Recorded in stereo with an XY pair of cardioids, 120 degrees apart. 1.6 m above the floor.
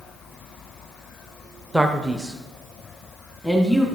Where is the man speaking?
10° right, 0.8 m; by 3.9 s 5° right, 1.9 m.